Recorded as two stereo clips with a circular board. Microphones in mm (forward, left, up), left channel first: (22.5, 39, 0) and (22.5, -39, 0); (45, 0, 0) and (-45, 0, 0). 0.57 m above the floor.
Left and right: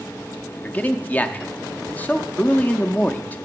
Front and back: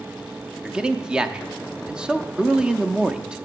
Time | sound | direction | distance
0.6 | a man speaking | 115° left | 0.6 m